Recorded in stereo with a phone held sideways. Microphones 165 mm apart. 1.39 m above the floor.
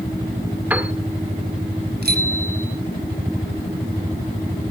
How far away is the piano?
About 1.8 m.